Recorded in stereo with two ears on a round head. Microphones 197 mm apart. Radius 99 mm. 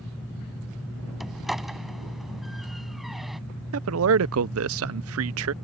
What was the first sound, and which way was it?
A door slam, centre (ahead or behind).